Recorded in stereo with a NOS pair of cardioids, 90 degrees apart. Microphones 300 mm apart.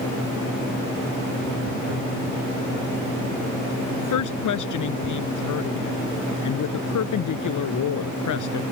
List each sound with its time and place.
4.0 s a woman speaking: 70° left